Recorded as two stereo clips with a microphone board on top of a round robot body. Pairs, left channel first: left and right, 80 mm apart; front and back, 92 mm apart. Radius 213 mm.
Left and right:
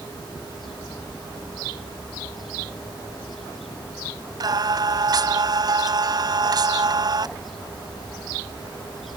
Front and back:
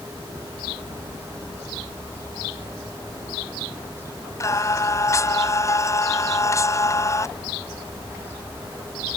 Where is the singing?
55° right.